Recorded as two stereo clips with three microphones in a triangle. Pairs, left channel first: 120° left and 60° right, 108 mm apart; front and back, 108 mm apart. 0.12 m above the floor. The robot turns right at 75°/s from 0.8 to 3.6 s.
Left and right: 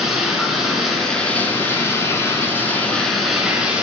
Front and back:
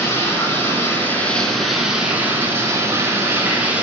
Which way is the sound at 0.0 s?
25° left.